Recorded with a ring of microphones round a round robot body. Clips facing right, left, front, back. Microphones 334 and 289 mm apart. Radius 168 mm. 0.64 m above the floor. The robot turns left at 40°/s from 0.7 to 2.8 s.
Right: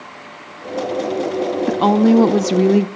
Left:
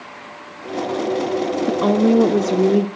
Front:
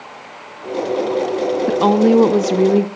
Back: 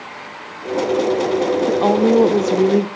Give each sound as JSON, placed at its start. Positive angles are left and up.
{"t": 1.7, "sound": "a woman speaking", "azimuth_deg": -30, "distance_m": 0.5}